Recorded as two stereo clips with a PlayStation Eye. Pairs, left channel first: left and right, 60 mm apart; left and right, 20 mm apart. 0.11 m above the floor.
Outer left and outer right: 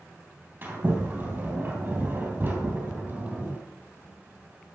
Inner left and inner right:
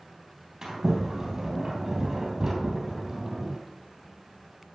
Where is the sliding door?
35° right (ahead or behind), 3 m.